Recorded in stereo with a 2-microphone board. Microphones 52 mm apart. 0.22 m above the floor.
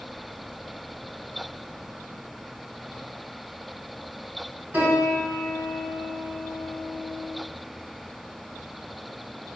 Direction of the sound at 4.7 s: 35° right (ahead or behind).